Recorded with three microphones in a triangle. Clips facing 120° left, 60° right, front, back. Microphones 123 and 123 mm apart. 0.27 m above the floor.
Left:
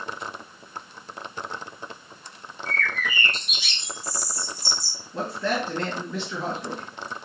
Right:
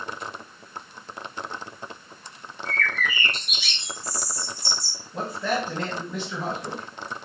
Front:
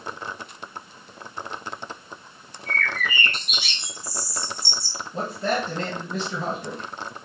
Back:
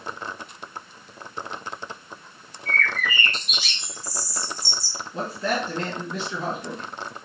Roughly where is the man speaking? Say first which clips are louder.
Even, front 1 dB; ahead.